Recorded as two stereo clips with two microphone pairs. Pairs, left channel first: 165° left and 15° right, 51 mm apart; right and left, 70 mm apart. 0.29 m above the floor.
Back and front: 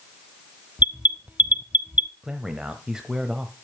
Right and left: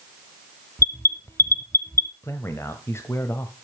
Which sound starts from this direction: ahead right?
An alarm, at 0.8 s.